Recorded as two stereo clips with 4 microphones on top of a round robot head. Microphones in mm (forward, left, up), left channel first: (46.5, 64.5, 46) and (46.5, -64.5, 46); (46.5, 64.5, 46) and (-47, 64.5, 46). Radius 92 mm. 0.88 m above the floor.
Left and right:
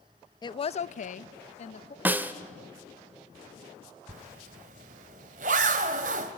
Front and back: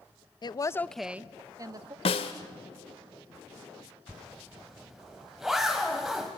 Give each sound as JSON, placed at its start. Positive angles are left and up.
{"t": 0.4, "sound": "a woman speaking", "azimuth_deg": 35, "distance_m": 0.8}
{"t": 2.0, "sound": "a snare drum", "azimuth_deg": -15, "distance_m": 0.8}
{"t": 4.1, "sound": "a zipper", "azimuth_deg": -90, "distance_m": 0.9}